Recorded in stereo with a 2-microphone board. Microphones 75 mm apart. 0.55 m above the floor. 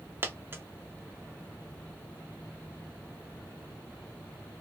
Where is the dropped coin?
30° right (ahead or behind), 0.5 m.